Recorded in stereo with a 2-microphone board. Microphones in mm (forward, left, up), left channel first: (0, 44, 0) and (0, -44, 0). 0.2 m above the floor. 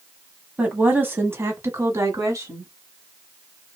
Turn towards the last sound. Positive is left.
turn(degrees=-35)  # may be behind; listen again after turning